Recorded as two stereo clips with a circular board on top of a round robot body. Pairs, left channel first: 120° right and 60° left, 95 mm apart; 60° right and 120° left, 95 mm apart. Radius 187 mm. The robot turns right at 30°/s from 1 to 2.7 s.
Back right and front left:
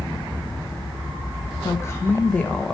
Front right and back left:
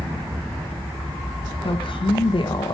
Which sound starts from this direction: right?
A woman speaking, at 1.6 s.